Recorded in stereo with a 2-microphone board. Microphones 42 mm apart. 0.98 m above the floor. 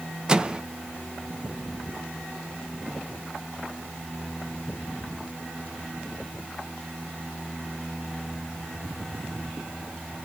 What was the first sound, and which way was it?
A microwave, 20° right (ahead or behind).